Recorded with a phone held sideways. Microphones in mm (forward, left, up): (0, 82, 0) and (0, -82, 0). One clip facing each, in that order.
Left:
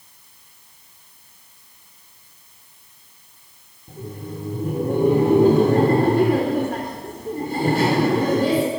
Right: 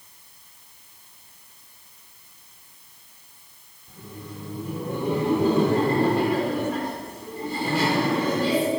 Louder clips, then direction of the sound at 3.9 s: Left 7 dB; 50° left (ahead or behind).